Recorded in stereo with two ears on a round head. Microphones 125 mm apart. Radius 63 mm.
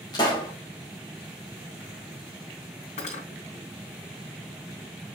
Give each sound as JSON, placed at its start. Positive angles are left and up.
{"t": 0.1, "sound": "a pop", "side_deg": 30, "distance_m": 4.5}
{"t": 3.0, "sound": "cutlery clinking", "side_deg": 55, "distance_m": 3.0}